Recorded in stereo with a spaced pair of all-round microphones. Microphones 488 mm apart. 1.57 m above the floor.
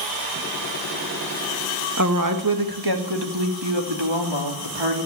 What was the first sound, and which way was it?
A woman speaking, 35° right (ahead or behind).